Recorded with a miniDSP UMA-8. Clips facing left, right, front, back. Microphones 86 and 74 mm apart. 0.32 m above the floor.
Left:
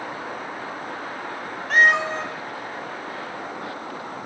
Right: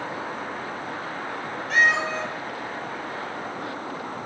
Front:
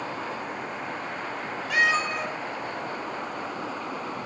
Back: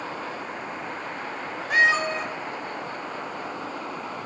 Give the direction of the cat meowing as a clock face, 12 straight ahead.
8 o'clock.